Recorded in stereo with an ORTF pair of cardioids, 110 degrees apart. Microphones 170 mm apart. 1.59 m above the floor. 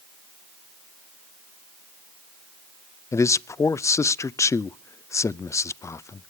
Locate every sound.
3.1 s a man speaking: 20° left, 0.5 m